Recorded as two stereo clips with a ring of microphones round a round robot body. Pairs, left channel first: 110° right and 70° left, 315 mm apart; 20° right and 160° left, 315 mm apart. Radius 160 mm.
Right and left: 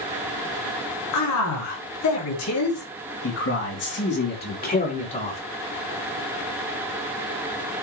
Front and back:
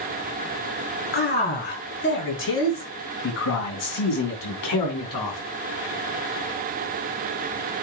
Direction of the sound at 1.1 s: 85° right.